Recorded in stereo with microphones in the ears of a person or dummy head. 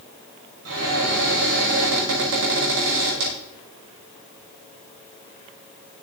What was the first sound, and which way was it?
A cupboard door, 85° right.